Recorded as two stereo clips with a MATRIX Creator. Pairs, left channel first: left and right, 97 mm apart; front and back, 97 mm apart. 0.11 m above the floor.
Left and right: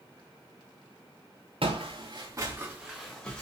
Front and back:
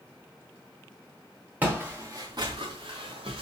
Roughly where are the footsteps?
Right.